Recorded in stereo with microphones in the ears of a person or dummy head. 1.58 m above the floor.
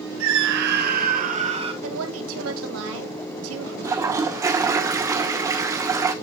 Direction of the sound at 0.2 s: 80° right.